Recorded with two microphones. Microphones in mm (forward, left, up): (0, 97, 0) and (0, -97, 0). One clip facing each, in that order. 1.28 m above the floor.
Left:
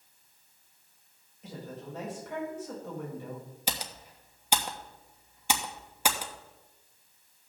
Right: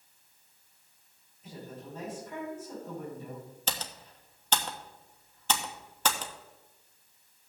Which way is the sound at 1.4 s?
70° left (ahead or behind).